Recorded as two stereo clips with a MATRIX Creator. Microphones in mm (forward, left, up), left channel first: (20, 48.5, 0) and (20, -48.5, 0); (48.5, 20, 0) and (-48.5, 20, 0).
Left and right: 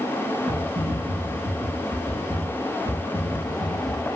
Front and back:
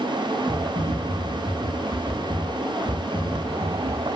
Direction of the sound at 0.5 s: 55° right.